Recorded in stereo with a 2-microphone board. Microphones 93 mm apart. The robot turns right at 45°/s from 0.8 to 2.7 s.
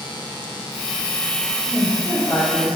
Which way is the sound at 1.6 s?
10° left.